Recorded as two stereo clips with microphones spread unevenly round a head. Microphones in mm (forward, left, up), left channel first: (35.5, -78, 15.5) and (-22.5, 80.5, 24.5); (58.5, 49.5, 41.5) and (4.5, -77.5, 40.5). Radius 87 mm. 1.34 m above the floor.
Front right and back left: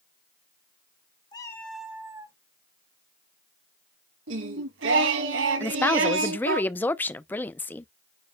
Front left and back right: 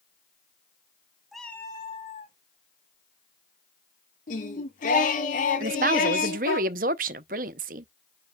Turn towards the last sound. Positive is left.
turn(degrees=-150)